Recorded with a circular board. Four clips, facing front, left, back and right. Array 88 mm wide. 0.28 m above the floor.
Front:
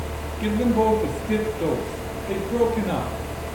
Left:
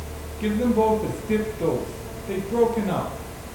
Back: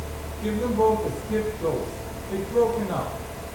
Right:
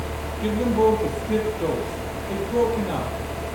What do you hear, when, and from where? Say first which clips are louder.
0.4 s a man speaking: right 1 dB, front 2 dB; 30° left, 7 m